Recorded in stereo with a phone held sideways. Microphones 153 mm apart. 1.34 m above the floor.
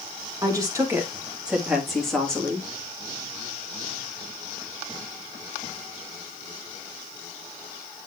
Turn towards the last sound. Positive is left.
turn(degrees=10)  # may be behind; listen again after turning